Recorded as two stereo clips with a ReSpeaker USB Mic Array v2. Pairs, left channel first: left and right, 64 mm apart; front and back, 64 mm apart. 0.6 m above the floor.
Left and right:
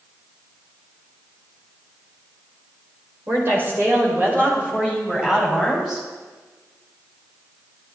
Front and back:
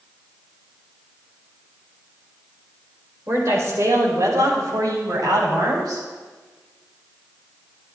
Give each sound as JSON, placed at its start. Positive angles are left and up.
{"t": 3.3, "sound": "a woman speaking", "azimuth_deg": -140, "distance_m": 2.5}